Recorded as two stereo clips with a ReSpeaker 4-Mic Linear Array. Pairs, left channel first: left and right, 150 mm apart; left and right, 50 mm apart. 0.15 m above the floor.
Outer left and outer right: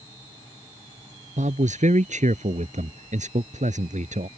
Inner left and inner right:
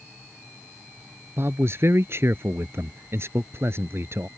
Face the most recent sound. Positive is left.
turn(degrees=-55)  # may be behind; listen again after turning